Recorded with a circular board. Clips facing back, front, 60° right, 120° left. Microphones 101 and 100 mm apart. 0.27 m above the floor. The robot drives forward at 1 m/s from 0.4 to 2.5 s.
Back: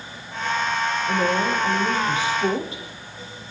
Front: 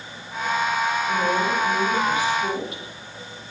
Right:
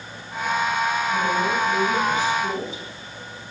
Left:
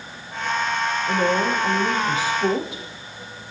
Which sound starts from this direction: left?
A woman speaking, at 1.1 s.